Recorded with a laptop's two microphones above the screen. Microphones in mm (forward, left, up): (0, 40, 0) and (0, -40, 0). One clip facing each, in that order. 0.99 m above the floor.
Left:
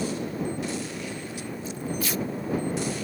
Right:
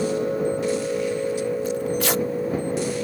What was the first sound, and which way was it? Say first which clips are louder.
A machine running: right 7 dB; 75° right (ahead or behind).